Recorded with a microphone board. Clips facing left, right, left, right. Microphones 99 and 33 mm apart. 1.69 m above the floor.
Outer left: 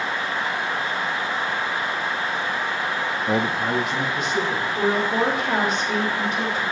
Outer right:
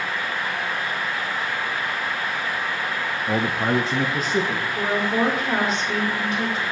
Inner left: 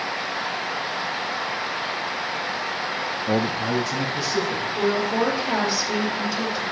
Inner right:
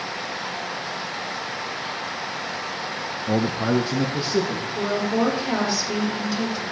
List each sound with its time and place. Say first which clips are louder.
3.3 s a man speaking: outer right 1 dB, inner right 2 dB; 25° left (ahead or behind), 0.5 m; by 4.7 s 40° right (ahead or behind), 2.5 m
4.8 s a woman speaking: outer left 1 dB, inner left 1 dB; centre (ahead or behind), 4 m